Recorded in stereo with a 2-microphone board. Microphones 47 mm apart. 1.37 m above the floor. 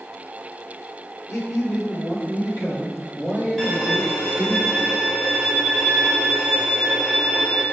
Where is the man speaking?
65° left (ahead or behind), 1.2 m.